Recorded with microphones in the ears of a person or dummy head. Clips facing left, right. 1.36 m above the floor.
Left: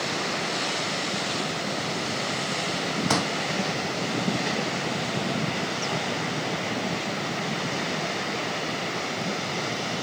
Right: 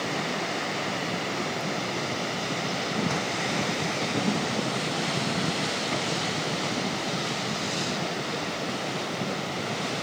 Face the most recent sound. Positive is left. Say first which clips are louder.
# left 4 dB
turn(degrees=65)  # may be behind; listen again after turning